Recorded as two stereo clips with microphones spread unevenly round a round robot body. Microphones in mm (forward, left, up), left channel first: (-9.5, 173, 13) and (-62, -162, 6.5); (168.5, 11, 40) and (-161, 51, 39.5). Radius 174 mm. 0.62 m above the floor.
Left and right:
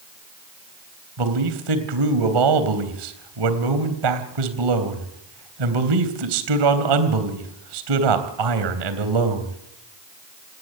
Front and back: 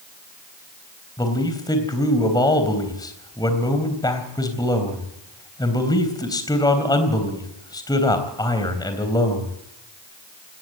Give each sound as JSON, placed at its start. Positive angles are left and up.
{"t": 1.2, "sound": "a man speaking", "azimuth_deg": -85, "distance_m": 3.5}